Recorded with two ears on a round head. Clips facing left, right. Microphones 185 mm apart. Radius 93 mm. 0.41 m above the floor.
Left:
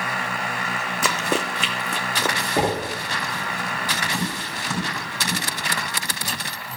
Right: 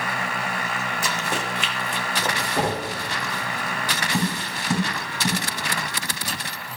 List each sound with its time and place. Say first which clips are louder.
1.0 s running footsteps: left 7 dB; 65° left (ahead or behind), 1.0 m; by 2.4 s 70° left (ahead or behind), 1.7 m
2.6 s knocking: left 3 dB; 20° left (ahead or behind), 1.1 m
4.1 s tapping: right 3 dB; 15° right (ahead or behind), 6 m